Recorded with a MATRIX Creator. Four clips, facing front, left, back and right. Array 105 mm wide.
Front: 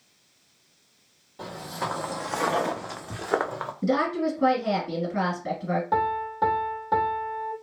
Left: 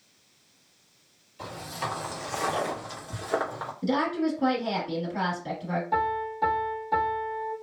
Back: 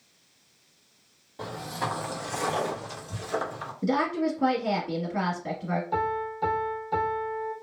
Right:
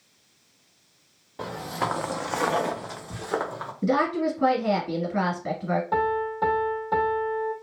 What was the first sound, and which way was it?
Footsteps, 95° right.